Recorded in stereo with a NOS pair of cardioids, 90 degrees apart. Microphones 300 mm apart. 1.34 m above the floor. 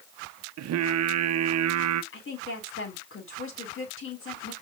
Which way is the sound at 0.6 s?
60° right.